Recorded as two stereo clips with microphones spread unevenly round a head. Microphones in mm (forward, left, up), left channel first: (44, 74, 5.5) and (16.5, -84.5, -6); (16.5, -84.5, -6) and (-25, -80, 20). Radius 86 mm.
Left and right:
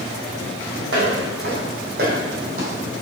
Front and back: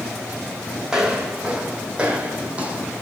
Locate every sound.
0.9 s footsteps: 125° right, 2.5 m; by 3.0 s 155° right, 2.5 m